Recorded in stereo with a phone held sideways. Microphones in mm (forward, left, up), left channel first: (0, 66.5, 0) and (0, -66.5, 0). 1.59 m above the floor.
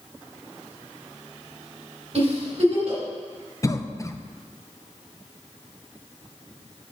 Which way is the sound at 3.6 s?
25° left (ahead or behind).